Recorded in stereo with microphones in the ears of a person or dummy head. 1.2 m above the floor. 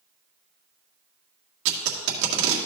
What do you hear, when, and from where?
1.6 s tape being pulled: 65° right (ahead or behind), 1.9 m